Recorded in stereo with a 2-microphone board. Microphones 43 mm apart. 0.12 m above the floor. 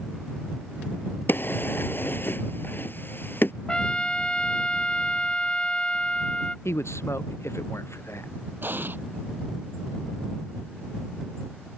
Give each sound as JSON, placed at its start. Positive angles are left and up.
{"t": 1.3, "sound": "a drawer", "side_deg": 55}
{"t": 3.7, "sound": "a trumpet", "side_deg": 20}
{"t": 6.7, "sound": "a man speaking", "side_deg": 80}
{"t": 8.6, "sound": "an explosion", "side_deg": -50}